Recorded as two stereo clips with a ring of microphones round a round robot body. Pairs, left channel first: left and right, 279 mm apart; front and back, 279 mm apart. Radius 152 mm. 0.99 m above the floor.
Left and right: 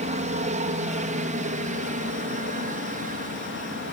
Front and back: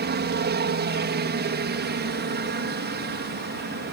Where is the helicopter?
145° right.